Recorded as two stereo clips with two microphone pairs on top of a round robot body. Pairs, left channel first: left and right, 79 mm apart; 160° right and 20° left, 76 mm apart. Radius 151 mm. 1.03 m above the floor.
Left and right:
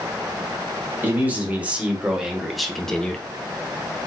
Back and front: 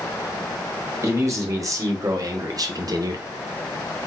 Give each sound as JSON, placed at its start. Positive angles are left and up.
{"t": 1.0, "sound": "a man speaking", "azimuth_deg": -25, "distance_m": 1.7}